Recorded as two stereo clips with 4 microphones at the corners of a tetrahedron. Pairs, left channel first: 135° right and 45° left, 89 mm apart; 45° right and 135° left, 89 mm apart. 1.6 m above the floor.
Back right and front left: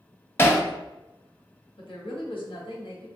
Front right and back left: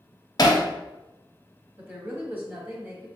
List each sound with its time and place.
0.4 s hammering: 75° right, 0.6 m
1.8 s a woman speaking: 155° right, 1.2 m